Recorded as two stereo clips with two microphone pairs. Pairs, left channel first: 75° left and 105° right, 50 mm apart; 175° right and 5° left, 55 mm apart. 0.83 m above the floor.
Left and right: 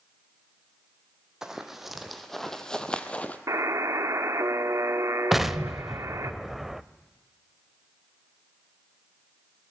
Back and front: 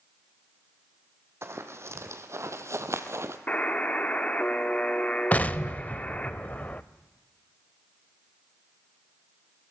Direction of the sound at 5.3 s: 175° right.